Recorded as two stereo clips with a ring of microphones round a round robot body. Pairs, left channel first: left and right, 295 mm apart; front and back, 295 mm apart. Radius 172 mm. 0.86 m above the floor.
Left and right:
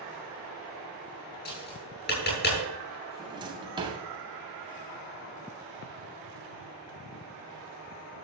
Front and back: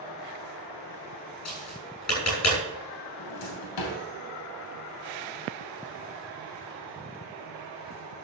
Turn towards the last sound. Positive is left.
turn(degrees=-15)